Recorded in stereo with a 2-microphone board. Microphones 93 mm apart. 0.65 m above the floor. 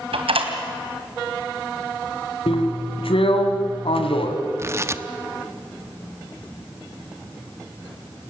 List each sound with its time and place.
0.1 s a door slam: 85° right, 2.5 m
2.5 s a drill: 85° left, 2 m
4.6 s tearing paper: 30° right (ahead or behind), 0.7 m